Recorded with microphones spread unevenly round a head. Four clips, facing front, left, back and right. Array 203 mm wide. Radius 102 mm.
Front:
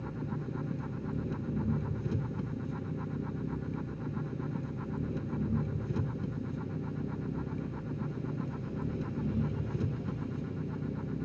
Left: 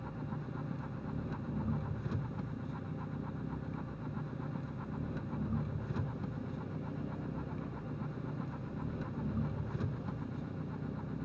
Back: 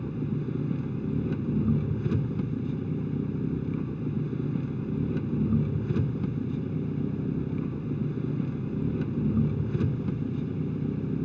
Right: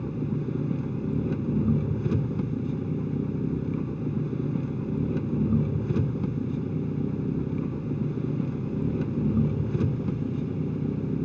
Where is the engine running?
125° right.